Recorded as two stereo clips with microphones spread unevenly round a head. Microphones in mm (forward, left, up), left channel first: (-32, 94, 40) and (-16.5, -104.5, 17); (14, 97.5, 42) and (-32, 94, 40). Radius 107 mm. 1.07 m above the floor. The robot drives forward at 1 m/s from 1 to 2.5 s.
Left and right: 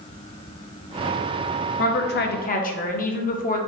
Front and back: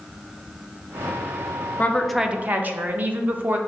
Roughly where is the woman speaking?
Ahead left.